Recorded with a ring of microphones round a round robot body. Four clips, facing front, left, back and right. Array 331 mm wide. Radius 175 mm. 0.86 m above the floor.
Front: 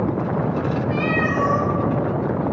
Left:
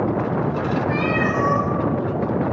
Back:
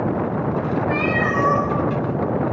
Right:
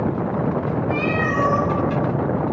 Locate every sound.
0.9 s a cat meowing: 165° left, 3.5 m